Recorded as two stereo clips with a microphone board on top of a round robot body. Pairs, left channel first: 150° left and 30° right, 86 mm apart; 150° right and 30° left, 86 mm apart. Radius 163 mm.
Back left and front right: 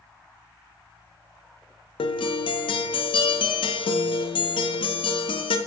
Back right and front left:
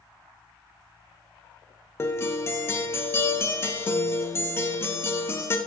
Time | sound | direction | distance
2.0 | a guitar | 145° left | 0.6 m